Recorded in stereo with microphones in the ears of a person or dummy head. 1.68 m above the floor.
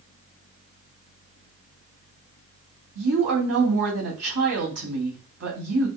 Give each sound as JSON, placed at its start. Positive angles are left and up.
{"t": 3.0, "sound": "a woman speaking", "side_deg": -65, "distance_m": 2.5}